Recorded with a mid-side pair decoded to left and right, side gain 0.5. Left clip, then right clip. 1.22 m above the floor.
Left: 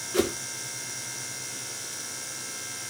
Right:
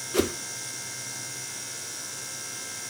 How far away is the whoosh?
About 1.1 m.